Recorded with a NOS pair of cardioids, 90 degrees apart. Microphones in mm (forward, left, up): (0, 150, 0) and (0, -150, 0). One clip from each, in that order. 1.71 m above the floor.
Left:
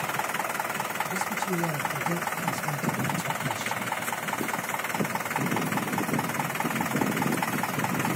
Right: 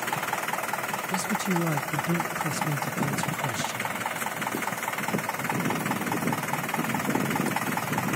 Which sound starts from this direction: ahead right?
A man speaking, at 1.1 s.